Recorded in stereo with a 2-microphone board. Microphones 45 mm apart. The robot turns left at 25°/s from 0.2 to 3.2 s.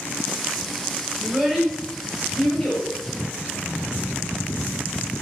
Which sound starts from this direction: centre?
A child speaking, at 1.2 s.